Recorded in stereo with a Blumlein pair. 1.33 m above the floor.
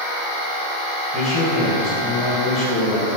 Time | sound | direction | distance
1.1 | a man speaking | 15° left | 1.5 m